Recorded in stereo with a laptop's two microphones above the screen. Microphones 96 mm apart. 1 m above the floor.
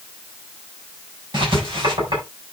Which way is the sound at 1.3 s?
55° right (ahead or behind).